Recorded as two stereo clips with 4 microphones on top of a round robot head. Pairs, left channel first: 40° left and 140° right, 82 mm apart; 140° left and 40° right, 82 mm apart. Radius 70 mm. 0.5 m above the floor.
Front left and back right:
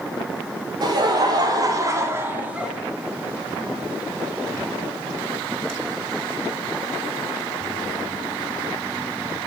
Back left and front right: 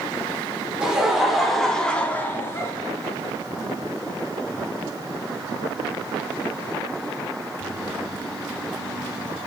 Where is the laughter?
120° right, 1.1 m; by 2.7 s 145° left, 0.7 m.